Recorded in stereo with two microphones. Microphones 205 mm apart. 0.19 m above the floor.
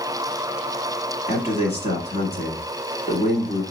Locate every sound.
1.3 s a man speaking: 30° left (ahead or behind), 1.7 m